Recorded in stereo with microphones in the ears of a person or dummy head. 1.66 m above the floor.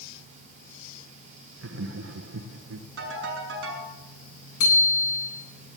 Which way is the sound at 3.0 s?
80° right.